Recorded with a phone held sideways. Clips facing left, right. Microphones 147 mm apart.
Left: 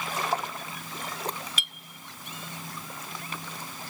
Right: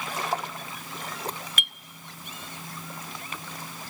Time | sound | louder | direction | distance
1.6 | a clink | right 4 dB | 55° right (ahead or behind) | 0.8 m